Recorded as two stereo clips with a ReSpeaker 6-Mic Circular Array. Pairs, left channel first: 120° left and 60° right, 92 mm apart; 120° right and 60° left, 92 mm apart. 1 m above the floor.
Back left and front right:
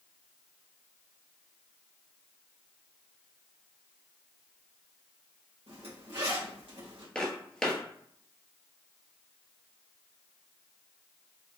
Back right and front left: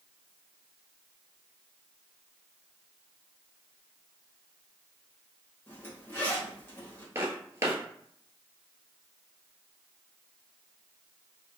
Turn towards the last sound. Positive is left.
turn(degrees=45)